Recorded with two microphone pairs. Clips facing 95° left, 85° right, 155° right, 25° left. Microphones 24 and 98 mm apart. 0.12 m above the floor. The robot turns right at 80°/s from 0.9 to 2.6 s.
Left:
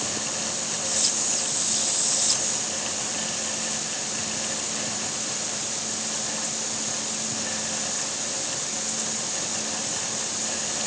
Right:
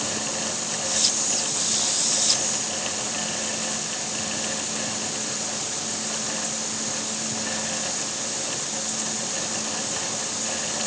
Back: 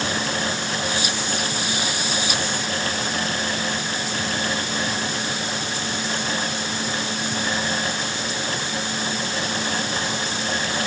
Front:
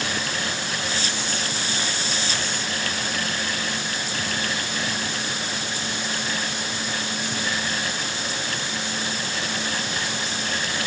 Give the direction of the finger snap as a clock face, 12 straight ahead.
I don't hear a finger snap.